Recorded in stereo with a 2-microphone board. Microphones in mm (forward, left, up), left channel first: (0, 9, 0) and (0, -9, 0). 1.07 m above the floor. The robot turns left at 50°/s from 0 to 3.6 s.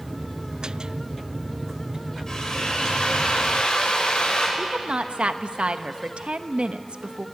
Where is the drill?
150° left, 6 m; by 4.5 s 80° left, 6 m.